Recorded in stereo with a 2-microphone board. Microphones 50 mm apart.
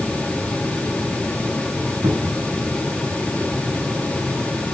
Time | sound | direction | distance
2.0 | a cupboard door | 70° right (ahead or behind) | 2.0 m